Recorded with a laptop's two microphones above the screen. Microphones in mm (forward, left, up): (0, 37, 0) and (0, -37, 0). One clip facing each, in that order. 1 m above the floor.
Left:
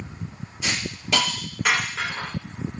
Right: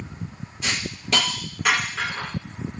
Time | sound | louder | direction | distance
0.6 | a hiss | even | 5° left (ahead or behind) | 1.0 m